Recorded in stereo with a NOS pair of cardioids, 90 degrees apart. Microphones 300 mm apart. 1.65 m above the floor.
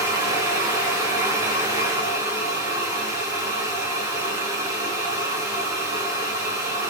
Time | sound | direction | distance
0.0 | a fan | 10° right | 1.3 m